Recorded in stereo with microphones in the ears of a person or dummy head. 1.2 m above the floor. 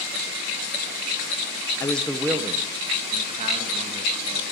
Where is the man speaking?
25° left (ahead or behind), 0.7 m; by 4.4 s 35° right (ahead or behind), 2.5 m.